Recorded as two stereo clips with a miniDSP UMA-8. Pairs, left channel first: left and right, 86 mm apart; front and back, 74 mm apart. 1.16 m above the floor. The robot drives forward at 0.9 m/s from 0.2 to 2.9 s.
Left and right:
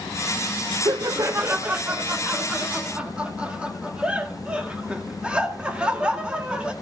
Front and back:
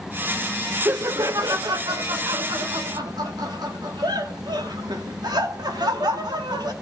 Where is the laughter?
125° right, 0.7 m; by 6.7 s 165° right, 2.5 m.